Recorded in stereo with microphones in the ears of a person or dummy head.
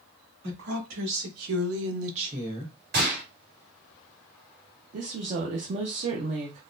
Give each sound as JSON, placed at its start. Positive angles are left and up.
{"t": 0.4, "sound": "a woman speaking", "side_deg": -70, "distance_m": 2.0}
{"t": 2.9, "sound": "a gunshot", "side_deg": -60, "distance_m": 2.0}
{"t": 4.9, "sound": "a woman speaking", "side_deg": -40, "distance_m": 0.5}